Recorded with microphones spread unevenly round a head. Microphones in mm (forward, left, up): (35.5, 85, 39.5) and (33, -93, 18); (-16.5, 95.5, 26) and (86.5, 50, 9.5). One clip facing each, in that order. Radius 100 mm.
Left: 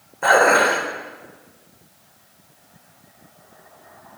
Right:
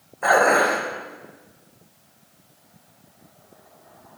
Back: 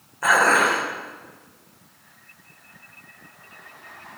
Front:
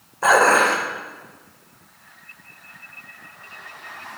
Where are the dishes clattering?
40° left, 3.5 m.